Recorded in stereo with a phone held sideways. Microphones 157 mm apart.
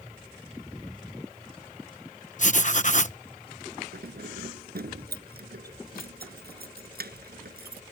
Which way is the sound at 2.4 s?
50° left (ahead or behind).